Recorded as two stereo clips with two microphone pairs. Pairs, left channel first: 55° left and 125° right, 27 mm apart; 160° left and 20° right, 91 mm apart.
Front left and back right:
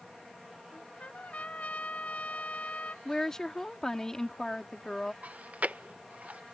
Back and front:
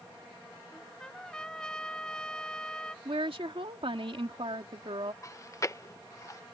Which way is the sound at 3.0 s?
15° right.